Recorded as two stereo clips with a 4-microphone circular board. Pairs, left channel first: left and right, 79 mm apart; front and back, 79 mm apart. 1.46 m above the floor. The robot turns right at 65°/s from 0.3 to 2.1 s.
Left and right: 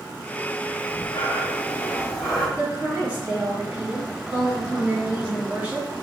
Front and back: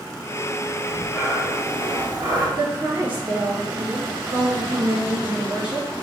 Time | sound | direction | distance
0.8 | breathing | 80° left | 1.7 m
2.6 | a woman speaking | 160° right | 2 m